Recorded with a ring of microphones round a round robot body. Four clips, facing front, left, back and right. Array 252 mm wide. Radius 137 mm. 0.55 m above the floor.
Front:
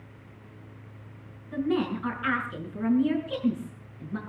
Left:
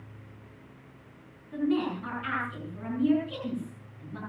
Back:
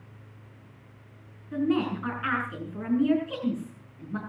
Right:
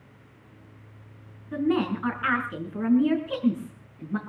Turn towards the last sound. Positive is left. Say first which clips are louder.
# right 3 dB, back 1 dB
turn(degrees=-105)